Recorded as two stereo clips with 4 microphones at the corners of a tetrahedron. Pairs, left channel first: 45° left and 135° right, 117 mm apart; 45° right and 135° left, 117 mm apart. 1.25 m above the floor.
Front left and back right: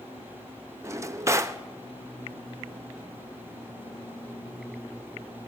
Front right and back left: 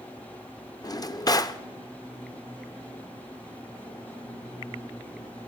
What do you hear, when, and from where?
0.8 s a drawer: 85° right, 0.6 m